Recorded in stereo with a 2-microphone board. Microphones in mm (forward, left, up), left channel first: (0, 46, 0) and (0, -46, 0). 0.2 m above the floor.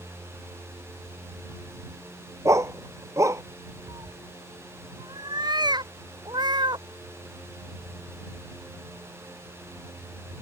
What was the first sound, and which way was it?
A dog barking, 35° right (ahead or behind).